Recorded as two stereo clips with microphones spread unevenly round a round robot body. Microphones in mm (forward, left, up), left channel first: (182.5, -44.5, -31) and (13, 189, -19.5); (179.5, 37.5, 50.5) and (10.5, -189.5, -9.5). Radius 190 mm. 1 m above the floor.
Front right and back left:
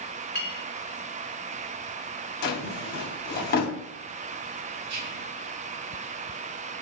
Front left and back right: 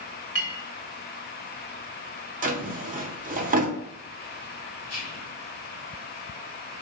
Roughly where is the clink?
Ahead.